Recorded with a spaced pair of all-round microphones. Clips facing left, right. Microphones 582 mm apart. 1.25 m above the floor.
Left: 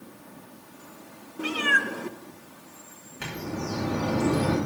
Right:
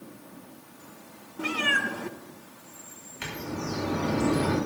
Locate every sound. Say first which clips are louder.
1.4 s a cat meowing: left 1 dB; 10° right (ahead or behind), 0.8 m
3.2 s a bird: left 1 dB; 70° left (ahead or behind), 5.5 m